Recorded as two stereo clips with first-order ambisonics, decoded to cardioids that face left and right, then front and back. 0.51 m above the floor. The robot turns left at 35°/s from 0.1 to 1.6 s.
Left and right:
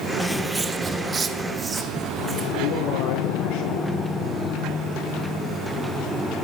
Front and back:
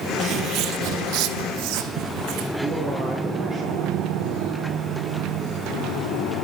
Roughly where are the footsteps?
Behind.